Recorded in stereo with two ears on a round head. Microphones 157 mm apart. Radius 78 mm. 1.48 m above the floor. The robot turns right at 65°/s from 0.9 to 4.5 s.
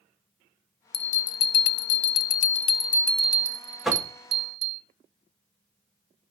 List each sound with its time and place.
0.9 s a bell: 30° left, 0.6 m; by 4.8 s 95° right, 0.6 m
3.9 s knocking: centre (ahead or behind), 1.4 m; by 4.1 s 20° right (ahead or behind), 1.4 m